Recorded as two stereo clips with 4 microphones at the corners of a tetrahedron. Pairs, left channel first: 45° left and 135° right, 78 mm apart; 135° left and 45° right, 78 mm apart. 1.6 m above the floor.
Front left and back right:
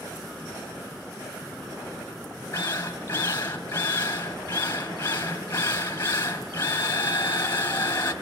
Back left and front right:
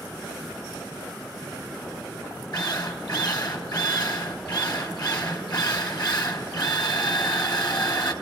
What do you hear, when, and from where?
2.5 s a drill: 100° left, 3.5 m